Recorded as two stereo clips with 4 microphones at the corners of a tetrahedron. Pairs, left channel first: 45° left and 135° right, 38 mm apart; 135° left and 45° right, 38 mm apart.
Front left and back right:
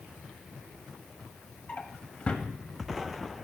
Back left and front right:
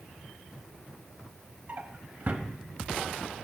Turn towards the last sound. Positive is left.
turn(degrees=-5)